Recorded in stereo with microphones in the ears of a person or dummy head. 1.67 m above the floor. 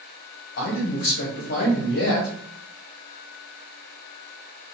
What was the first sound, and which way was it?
A man speaking, 55° left (ahead or behind).